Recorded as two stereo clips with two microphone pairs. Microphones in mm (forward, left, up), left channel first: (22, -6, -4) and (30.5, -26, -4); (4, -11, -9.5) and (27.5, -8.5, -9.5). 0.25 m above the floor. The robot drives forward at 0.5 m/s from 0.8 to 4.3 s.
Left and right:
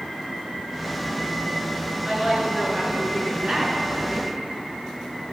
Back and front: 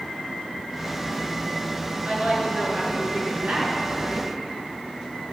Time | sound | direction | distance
2.0 | a woman speaking | 20° right | 4.5 m